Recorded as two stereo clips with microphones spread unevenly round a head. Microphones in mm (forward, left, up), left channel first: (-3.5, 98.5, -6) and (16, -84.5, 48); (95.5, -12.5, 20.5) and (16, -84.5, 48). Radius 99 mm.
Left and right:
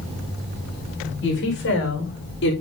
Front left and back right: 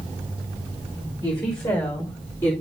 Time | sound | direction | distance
1.2 | a woman speaking | 115° left | 5.5 m